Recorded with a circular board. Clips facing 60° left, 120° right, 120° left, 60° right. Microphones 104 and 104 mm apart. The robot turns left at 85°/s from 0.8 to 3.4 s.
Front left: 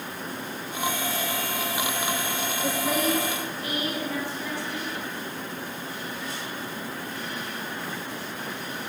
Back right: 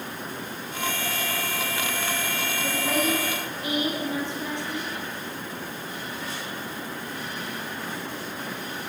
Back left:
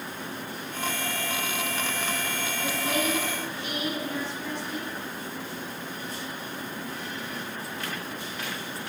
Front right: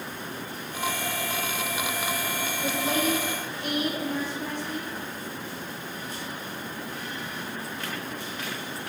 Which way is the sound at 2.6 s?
5° left.